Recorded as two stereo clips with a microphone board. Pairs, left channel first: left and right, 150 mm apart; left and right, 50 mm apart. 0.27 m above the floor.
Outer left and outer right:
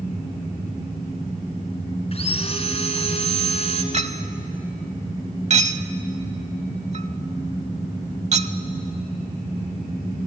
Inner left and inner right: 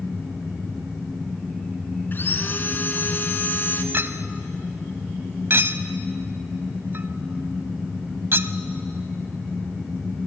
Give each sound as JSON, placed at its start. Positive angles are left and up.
{"t": 2.1, "sound": "sawing", "side_deg": 45, "distance_m": 1.8}
{"t": 3.9, "sound": "a clink", "side_deg": -50, "distance_m": 0.8}